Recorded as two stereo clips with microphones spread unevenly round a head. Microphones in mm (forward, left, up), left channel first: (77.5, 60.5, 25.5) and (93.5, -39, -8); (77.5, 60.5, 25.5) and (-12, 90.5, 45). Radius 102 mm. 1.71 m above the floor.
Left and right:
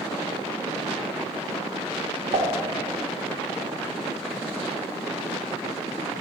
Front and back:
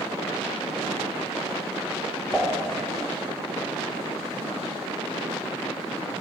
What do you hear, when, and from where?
2.3 s dishes clattering: 105° right, 1.8 m